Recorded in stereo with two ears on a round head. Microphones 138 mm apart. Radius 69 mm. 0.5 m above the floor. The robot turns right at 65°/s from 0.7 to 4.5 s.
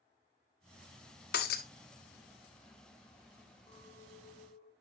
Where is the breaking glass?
70° left (ahead or behind), 1.0 m; by 1.6 s 65° left (ahead or behind), 1.0 m.